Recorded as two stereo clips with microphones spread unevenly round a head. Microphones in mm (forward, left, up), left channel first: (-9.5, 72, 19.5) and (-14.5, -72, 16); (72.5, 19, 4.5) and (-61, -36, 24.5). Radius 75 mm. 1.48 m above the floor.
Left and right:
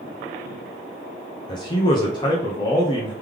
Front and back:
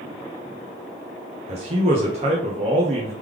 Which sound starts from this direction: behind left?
A man speaking, at 1.5 s.